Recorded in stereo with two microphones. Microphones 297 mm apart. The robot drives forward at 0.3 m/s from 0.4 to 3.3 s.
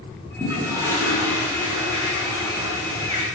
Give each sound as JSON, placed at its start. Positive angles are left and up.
{"t": 0.4, "sound": "a toilet flushing", "side_deg": -10, "distance_m": 2.5}